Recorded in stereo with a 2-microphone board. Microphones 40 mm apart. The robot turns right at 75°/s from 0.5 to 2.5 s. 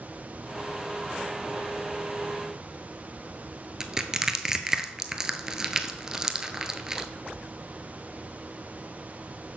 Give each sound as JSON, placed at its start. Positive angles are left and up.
{"t": 3.8, "sound": "crushing", "side_deg": -15, "distance_m": 0.6}